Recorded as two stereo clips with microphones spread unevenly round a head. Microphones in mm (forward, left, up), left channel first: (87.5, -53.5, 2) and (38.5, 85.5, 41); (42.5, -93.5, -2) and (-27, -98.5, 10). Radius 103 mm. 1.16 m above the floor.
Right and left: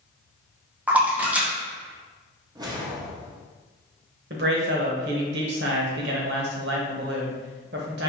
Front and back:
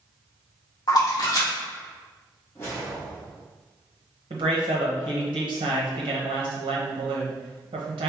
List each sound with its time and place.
0.9 s a splash: 20° left, 1.2 m
2.5 s a whoosh: 70° left, 0.8 m
4.3 s a man speaking: 150° left, 0.8 m